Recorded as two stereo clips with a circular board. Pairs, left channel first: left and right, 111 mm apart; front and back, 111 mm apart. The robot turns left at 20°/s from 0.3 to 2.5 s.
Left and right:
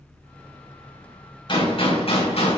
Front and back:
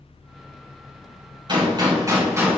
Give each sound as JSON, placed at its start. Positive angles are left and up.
{"t": 1.5, "sound": "a gunshot", "azimuth_deg": 135, "distance_m": 4.5}